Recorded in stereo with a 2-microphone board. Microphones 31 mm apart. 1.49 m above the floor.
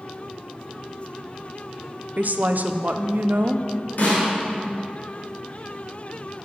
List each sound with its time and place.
2.2 s a woman speaking: 60° right (ahead or behind), 0.6 m
4.0 s a snare drum: 65° left (ahead or behind), 3.5 m